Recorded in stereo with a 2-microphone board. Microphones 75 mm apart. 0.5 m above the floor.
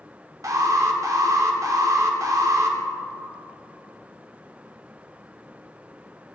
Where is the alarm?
50° right (ahead or behind), 0.6 m.